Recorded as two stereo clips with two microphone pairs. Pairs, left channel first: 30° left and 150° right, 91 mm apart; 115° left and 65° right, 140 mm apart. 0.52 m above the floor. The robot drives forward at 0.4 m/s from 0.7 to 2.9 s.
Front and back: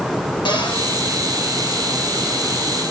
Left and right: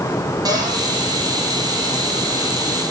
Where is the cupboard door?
Straight ahead, 6 m.